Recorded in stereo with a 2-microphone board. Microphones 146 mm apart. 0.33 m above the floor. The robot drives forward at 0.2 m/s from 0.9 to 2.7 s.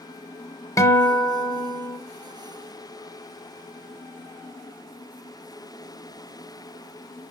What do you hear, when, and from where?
0.8 s a guitar: 20° left (ahead or behind), 1.0 m; by 2.0 s 25° left (ahead or behind), 0.9 m